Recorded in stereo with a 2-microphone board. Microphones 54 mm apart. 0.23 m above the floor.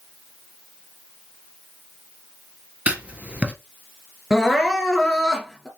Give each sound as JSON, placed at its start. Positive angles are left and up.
{"t": 2.9, "sound": "writing", "side_deg": -25, "distance_m": 1.8}
{"t": 4.3, "sound": "crying", "side_deg": 10, "distance_m": 2.5}